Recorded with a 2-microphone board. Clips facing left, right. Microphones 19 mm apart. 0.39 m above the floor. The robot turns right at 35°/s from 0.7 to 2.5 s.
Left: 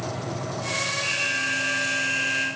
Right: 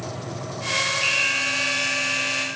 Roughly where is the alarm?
Ahead right.